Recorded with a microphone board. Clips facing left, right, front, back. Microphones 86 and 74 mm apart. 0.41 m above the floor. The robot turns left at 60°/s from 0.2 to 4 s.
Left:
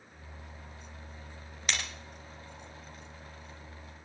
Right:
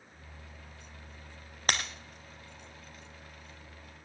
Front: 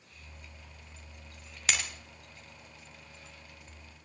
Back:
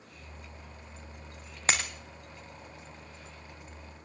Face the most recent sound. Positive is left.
turn(degrees=95)